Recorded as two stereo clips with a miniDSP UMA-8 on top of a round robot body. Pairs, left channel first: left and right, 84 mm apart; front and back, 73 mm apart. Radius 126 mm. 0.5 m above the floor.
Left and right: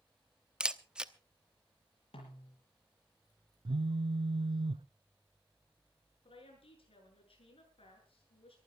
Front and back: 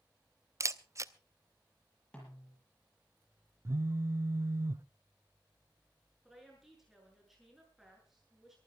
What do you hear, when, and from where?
0.6 s a camera shutter: 165° right, 1.1 m
2.1 s a snare drum: 80° left, 7.5 m
3.6 s a phone buzzing: 120° right, 0.7 m
6.2 s a woman speaking: 95° left, 8 m